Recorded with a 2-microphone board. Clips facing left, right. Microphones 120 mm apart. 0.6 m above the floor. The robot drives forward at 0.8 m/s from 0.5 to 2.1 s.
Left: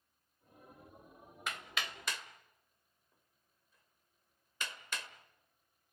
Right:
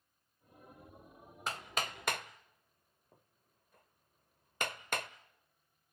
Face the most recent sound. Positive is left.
turn(degrees=-55)  # may be behind; listen again after turning